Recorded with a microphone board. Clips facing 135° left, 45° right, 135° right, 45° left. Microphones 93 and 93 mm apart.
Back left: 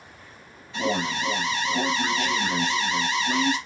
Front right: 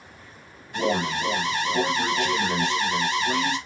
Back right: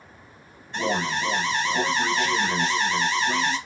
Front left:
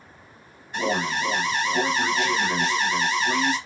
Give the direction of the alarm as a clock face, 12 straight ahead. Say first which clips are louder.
Front right 2 dB, front left 1 dB; 1 o'clock.